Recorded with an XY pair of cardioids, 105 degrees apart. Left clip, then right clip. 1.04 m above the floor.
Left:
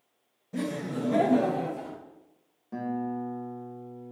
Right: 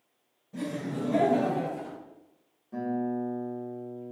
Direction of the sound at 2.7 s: 55° left.